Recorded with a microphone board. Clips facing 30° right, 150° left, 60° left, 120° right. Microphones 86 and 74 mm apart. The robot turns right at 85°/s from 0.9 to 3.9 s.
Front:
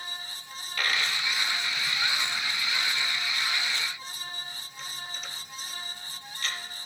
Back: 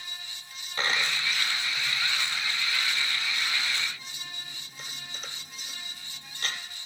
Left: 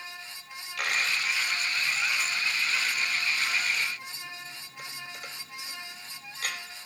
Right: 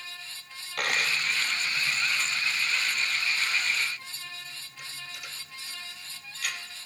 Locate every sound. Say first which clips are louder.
0.8 s a dropped coin: back 1 dB, right 1 dB; 150° right, 1.3 m; by 6.6 s 105° left, 1.3 m